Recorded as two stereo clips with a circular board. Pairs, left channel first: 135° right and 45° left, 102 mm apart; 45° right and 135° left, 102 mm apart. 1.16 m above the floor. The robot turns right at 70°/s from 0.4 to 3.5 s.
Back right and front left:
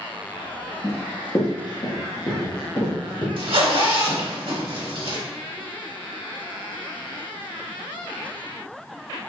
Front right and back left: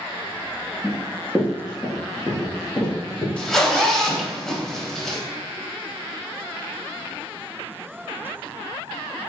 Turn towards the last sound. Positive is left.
turn(degrees=40)